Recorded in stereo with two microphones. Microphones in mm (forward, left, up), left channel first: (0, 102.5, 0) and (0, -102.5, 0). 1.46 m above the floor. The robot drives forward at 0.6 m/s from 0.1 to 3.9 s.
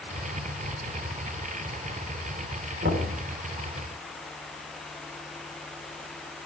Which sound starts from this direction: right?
Knocking, at 2.8 s.